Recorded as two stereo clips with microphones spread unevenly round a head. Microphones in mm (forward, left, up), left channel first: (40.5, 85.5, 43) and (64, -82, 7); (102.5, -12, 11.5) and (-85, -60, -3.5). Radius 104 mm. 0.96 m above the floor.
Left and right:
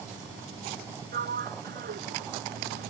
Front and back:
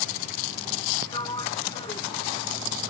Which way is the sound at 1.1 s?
55° right.